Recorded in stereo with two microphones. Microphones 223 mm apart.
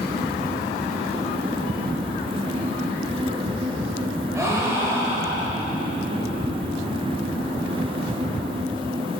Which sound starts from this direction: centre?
A gasp, at 4.3 s.